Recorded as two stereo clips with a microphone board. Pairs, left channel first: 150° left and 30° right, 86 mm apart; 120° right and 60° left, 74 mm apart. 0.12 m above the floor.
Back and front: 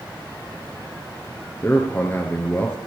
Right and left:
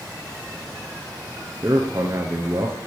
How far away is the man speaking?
About 1.4 m.